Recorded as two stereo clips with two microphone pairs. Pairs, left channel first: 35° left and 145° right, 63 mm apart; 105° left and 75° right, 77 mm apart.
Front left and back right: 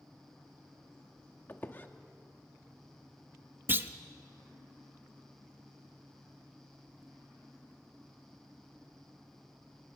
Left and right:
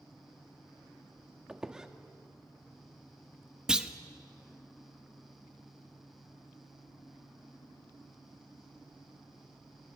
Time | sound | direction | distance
1.5 | a squeak | straight ahead | 1.0 m
3.7 | a clunk | 140° right | 0.8 m